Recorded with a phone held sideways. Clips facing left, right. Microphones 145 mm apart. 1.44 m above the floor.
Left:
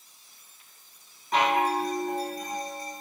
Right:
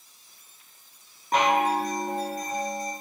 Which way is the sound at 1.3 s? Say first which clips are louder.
Right 2 dB; 50° right (ahead or behind).